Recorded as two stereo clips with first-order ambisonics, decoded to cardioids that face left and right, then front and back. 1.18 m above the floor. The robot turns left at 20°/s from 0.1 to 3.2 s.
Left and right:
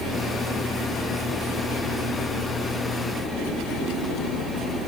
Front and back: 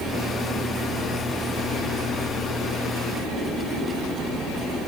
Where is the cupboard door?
I don't hear a cupboard door.